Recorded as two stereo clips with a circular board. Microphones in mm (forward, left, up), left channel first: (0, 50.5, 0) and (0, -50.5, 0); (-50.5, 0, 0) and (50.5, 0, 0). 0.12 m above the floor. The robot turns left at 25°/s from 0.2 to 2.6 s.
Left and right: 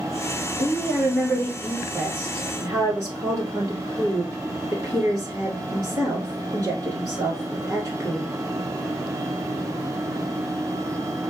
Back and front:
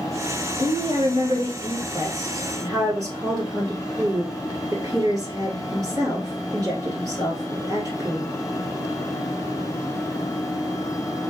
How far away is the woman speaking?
About 1.8 m.